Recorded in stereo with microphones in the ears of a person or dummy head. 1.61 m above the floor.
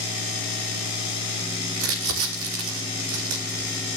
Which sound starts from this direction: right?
Crumpling, at 1.8 s.